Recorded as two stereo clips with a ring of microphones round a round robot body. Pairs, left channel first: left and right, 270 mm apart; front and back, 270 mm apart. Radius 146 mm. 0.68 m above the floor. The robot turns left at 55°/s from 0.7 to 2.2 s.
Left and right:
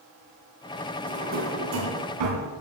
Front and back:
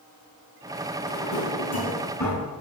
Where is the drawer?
20° right, 2.5 m; by 2.5 s 80° right, 2.5 m.